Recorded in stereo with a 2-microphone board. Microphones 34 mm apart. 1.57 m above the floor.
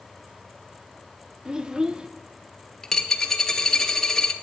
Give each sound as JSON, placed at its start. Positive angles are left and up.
{"t": 1.4, "sound": "a child speaking", "side_deg": -20, "distance_m": 0.5}
{"t": 2.8, "sound": "a dropped coin", "side_deg": 15, "distance_m": 0.8}